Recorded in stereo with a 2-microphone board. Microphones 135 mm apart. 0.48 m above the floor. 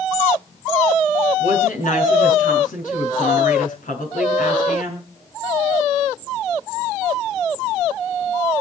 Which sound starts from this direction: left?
A woman speaking, at 1.4 s.